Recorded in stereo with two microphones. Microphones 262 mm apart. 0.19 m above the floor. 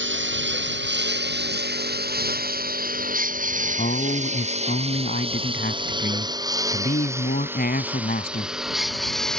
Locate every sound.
0.0 s a lawn mower: 45° right (ahead or behind); by 9.4 s 5° left (ahead or behind)
3.8 s a man speaking: 35° left (ahead or behind)